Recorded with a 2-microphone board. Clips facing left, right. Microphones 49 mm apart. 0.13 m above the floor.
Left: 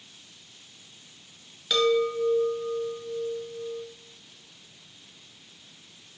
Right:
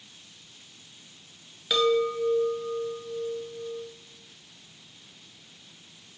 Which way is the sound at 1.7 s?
5° right (ahead or behind).